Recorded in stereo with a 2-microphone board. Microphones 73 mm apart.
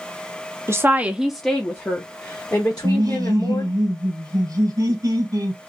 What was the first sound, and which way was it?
A woman speaking, 40° right (ahead or behind).